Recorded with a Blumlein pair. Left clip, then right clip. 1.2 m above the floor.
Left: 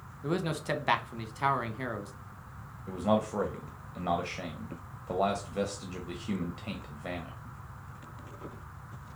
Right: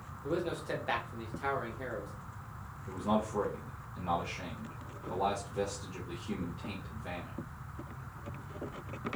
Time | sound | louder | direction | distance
0.2 | a man speaking | left 3 dB | 60° left | 0.8 m
2.9 | a man speaking | left 4 dB | 65° left | 0.6 m